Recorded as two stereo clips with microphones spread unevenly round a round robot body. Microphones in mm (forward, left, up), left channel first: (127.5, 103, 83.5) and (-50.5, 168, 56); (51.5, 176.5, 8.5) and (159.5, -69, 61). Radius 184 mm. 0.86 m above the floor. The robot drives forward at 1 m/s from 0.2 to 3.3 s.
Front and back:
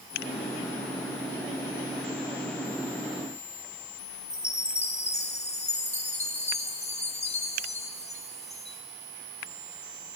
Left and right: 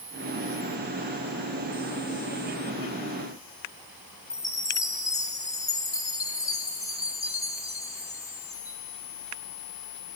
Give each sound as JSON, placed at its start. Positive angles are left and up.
{"t": 4.3, "sound": "a chime", "azimuth_deg": 40, "distance_m": 3.5}